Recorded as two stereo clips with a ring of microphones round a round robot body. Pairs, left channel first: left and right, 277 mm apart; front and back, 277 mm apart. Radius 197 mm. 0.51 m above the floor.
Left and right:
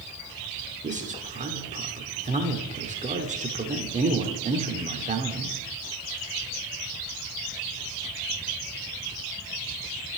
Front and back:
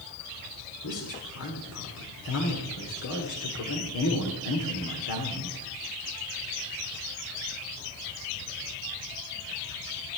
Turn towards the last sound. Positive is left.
turn(degrees=-30)